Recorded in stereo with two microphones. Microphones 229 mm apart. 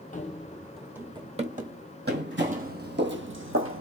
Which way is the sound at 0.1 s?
35° left (ahead or behind).